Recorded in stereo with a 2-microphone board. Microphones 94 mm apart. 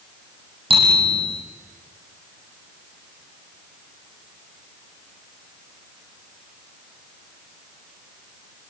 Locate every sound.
0.7 s a bicycle bell: 65° right (ahead or behind), 9 m